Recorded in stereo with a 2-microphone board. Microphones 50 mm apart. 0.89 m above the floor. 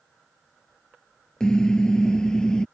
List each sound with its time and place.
1.4 s a car horn: 15° left (ahead or behind); by 2.6 s 10° left (ahead or behind)